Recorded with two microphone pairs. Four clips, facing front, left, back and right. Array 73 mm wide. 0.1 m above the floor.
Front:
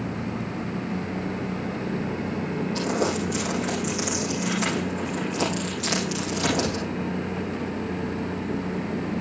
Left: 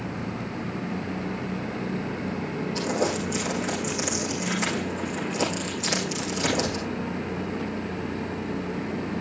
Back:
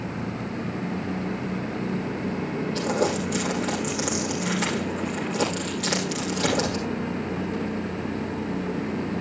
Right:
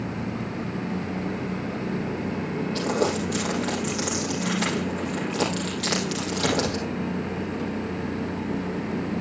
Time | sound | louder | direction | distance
2.8 | crumpling | right 2 dB, back 1 dB | 110° right | 5 m